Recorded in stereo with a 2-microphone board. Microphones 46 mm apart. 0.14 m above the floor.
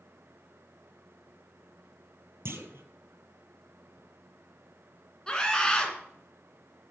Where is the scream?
15° left (ahead or behind), 1.9 m.